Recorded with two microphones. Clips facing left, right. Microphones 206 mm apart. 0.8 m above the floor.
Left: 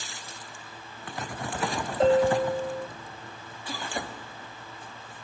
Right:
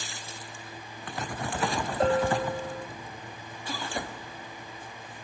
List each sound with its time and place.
2.0 s a bell: 20° left (ahead or behind), 0.7 m